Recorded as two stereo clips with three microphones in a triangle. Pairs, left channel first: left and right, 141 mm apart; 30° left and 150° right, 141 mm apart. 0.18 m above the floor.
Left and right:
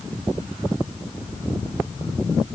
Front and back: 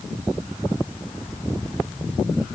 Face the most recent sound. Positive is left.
No sound to turn to.